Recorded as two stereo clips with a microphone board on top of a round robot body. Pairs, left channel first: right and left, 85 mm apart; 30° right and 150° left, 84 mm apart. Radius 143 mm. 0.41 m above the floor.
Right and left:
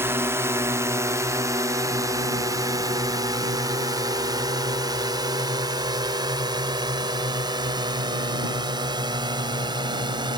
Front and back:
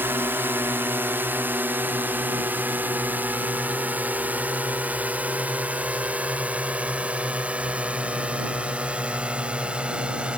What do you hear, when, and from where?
0.0 s a drone: 115° left; by 10.4 s 75° left